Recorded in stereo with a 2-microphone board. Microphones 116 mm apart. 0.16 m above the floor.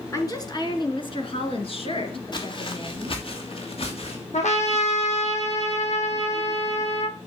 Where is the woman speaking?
30° left (ahead or behind), 2 m; by 3.2 s 45° left (ahead or behind), 3 m.